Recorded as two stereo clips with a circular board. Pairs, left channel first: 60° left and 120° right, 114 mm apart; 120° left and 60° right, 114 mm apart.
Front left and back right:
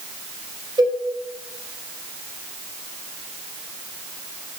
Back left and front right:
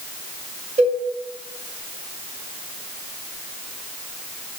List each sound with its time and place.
0.8 s a cowbell: 70° right, 1.5 m